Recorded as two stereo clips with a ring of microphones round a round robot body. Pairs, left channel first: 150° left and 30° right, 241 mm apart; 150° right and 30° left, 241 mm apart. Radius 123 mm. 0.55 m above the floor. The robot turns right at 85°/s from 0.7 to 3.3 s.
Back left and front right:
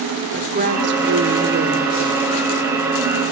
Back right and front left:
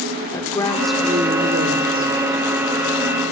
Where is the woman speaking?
75° right, 1.9 m; by 2.1 s 45° left, 1.9 m.